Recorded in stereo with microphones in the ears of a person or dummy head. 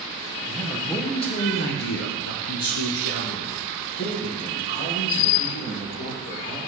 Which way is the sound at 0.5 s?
5° left (ahead or behind).